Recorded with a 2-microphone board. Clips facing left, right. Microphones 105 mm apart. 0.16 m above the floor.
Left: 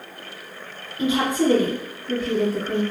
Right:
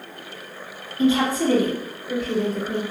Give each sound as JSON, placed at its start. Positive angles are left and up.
{"t": 1.0, "sound": "a woman speaking", "side_deg": 20, "distance_m": 1.6}